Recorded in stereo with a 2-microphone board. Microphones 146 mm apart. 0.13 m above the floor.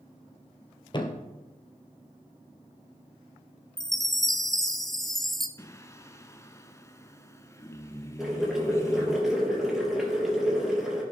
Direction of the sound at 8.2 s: 5° right (ahead or behind).